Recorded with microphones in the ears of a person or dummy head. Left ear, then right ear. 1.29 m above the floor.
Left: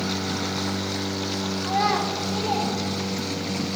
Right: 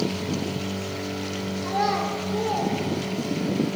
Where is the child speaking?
5° left (ahead or behind), 0.7 m; by 3.5 s 20° left (ahead or behind), 2.5 m.